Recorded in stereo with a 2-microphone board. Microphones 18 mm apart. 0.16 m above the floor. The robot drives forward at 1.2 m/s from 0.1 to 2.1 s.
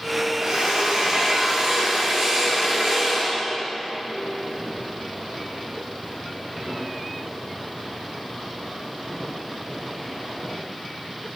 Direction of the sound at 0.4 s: 55° right (ahead or behind).